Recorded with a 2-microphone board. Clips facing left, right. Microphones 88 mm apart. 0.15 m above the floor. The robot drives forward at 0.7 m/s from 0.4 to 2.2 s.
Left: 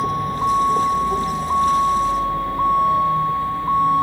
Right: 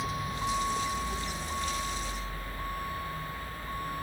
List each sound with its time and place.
0.0 s a vehicle: 50° left (ahead or behind); by 4.0 s 65° left (ahead or behind)